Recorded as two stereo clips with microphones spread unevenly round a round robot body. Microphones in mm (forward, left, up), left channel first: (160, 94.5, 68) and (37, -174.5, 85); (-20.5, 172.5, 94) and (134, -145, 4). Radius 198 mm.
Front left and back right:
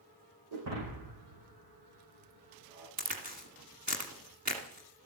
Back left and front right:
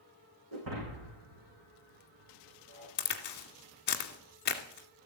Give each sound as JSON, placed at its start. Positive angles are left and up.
{"t": 0.5, "sound": "breaking glass", "azimuth_deg": -105, "distance_m": 6.0}
{"t": 3.0, "sound": "a crack", "azimuth_deg": 180, "distance_m": 1.4}